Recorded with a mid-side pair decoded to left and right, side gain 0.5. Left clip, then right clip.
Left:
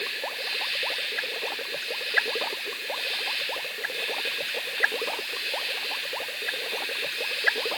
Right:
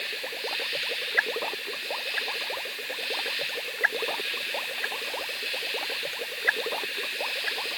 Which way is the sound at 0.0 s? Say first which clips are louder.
Left 2 dB; 25° left.